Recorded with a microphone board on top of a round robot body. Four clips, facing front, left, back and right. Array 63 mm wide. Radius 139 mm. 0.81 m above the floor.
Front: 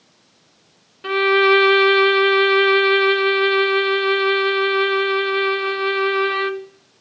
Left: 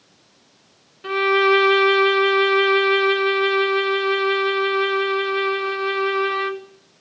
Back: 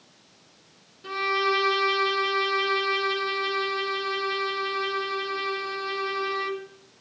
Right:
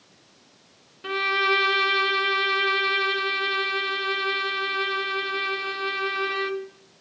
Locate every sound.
1.0 s a violin: straight ahead, 0.7 m